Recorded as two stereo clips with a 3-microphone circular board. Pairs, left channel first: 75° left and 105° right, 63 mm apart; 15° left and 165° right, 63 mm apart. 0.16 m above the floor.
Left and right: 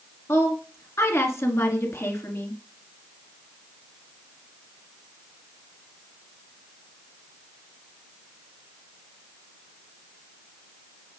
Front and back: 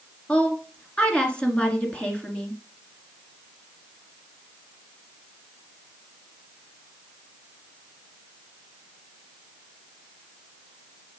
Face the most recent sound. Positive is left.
turn(degrees=85)